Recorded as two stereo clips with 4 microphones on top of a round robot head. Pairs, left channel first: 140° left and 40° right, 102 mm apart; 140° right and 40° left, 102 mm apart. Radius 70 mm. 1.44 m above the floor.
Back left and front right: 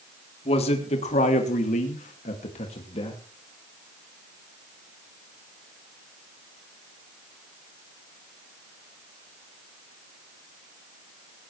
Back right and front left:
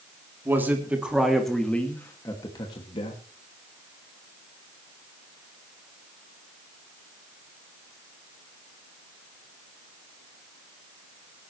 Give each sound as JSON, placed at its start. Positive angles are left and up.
{"t": 0.5, "sound": "a man speaking", "azimuth_deg": 110, "distance_m": 3.5}